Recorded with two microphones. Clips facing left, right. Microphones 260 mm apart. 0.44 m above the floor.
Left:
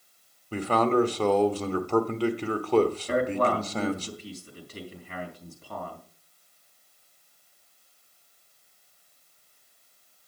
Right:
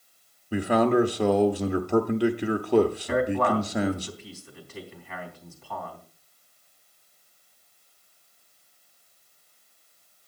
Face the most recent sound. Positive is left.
turn(degrees=40)  # may be behind; listen again after turning